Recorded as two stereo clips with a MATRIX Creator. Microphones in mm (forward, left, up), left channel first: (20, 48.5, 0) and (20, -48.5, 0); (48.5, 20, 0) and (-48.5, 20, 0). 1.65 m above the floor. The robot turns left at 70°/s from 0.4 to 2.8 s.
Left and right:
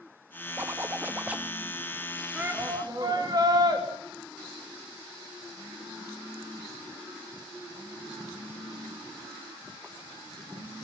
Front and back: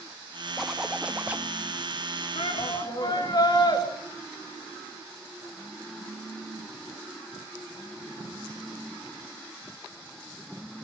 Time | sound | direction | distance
0.6 | a zipper | 85° right | 1.0 m
2.4 | a shout | 10° right | 3.5 m